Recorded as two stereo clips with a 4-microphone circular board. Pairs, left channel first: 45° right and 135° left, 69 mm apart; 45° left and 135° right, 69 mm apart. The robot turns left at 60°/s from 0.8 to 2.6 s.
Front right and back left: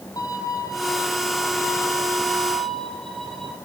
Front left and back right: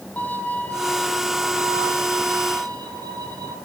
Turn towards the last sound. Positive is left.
turn(degrees=-125)